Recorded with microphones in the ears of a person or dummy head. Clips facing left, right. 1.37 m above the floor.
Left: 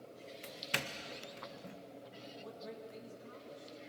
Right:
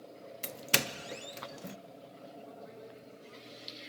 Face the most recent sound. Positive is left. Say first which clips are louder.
# left 4 dB
turn(degrees=85)